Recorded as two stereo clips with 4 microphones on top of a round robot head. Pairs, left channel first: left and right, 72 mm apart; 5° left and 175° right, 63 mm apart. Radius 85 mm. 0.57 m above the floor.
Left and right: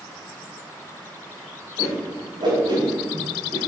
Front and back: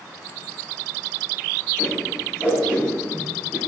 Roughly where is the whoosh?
Right.